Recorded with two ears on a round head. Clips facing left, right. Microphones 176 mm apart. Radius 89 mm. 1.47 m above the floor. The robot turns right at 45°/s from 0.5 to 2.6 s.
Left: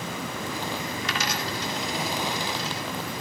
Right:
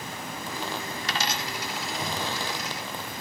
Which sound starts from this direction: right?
A dropped coin, at 1.0 s.